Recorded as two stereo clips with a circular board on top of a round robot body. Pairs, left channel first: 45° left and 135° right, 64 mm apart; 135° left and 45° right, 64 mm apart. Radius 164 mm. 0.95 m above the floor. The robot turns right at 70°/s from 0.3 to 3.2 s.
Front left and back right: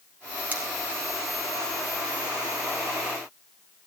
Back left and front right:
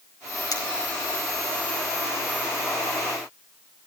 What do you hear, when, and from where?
0.5 s cutlery clinking: 160° left, 3.5 m; by 0.6 s 170° left, 3.5 m